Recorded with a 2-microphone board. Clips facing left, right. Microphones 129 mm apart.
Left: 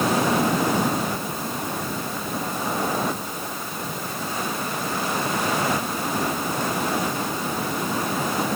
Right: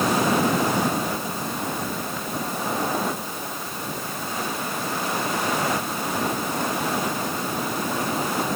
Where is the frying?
I don't hear frying.